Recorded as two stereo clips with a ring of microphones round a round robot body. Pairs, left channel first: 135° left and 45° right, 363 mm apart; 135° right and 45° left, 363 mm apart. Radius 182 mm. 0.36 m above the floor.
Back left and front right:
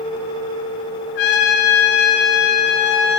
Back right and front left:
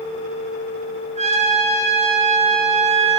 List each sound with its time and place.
1.1 s a trumpet: 115° left, 1.7 m